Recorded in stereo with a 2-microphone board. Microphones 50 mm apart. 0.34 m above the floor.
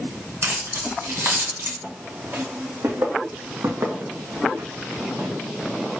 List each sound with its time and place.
0.4 s keys jangling: 70° right (ahead or behind), 2.5 m; by 1.7 s 50° right (ahead or behind), 1.8 m
1.8 s footsteps: 45° right (ahead or behind), 1.9 m; by 5.3 s 65° right (ahead or behind), 1.8 m